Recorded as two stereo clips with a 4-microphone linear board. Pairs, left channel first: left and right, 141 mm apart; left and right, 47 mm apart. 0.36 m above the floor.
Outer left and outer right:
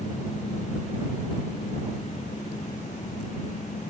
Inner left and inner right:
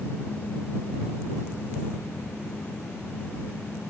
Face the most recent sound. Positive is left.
No sound to turn to.